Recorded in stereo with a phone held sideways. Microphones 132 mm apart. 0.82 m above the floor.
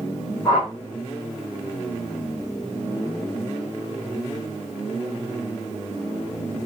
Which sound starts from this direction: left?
A whoosh, at 0.5 s.